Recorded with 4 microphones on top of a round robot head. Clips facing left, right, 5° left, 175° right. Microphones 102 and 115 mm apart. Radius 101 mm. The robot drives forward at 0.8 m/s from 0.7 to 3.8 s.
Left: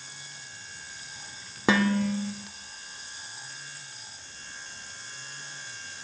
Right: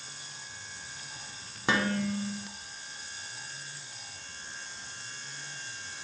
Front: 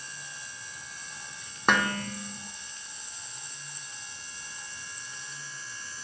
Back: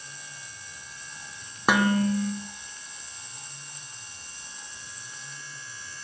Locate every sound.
1.7 s dishes clattering: 100° left, 0.6 m; by 2.3 s 135° left, 0.8 m